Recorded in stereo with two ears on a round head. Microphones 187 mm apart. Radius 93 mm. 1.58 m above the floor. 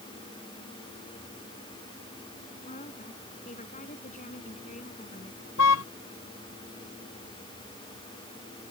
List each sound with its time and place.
2.6 s a woman speaking: 35° left (ahead or behind)
5.6 s a car horn: 85° left